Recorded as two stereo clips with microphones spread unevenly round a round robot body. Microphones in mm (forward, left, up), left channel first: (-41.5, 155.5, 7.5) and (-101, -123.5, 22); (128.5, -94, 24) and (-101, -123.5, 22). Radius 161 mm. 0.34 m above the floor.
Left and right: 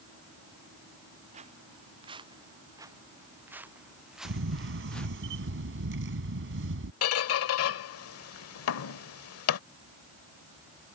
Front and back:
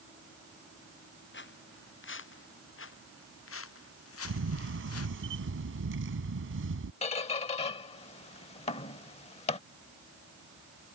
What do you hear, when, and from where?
1.3 s footsteps: 30° right; by 5.2 s 10° right
4.2 s a camera shutter: 145° right
7.0 s a squeak: 70° left